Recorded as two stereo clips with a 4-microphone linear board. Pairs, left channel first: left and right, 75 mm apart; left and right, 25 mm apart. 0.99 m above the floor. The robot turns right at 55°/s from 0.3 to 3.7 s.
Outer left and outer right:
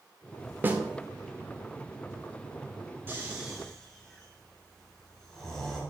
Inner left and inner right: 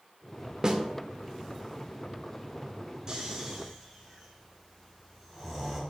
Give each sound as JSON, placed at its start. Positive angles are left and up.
{"t": 0.6, "sound": "a snare drum", "side_deg": -30, "distance_m": 1.0}
{"t": 3.1, "sound": "snoring", "side_deg": -30, "distance_m": 3.0}